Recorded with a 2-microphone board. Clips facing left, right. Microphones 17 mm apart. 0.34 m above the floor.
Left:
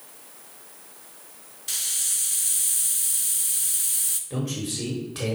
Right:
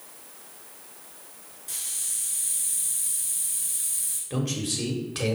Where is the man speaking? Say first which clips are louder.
Right 4 dB; 30° right (ahead or behind), 1.6 m.